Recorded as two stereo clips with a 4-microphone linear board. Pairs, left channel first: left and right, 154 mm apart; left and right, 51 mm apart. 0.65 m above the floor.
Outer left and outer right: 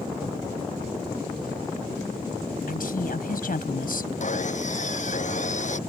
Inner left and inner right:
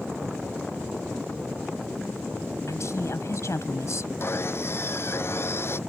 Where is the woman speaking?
70° left (ahead or behind).